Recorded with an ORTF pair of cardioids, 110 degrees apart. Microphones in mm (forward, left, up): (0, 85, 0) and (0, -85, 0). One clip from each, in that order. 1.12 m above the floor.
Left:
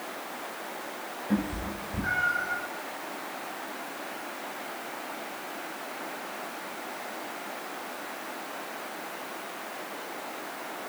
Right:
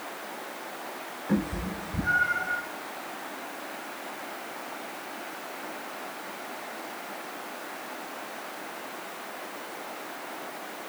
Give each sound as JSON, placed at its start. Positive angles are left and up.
{"t": 1.3, "sound": "a cat meowing", "azimuth_deg": -45, "distance_m": 2.0}